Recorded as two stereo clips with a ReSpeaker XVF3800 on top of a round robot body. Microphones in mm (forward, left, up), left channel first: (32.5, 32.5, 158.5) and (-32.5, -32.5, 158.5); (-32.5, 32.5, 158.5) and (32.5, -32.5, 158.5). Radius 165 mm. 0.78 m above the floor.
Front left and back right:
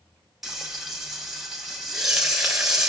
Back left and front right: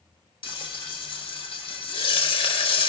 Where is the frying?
140° left, 1.0 m.